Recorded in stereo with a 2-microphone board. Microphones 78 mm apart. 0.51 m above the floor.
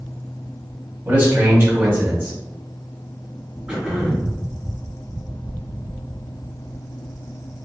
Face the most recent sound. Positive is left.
turn(degrees=-10)  # may be behind; listen again after turning